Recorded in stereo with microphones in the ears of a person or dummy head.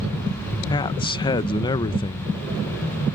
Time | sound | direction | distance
0.7 | a man speaking | 20° left (ahead or behind) | ?